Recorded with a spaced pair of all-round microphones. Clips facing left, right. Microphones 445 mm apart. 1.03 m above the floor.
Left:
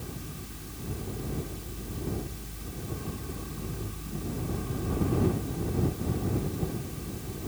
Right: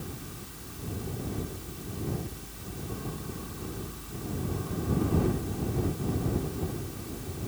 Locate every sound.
0.0 s a fan: 40° left (ahead or behind)